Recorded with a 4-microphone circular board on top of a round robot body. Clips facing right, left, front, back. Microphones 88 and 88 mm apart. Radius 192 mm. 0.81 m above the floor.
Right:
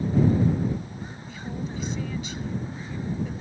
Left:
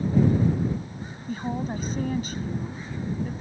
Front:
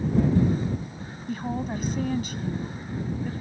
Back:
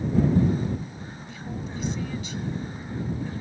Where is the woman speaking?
40° left.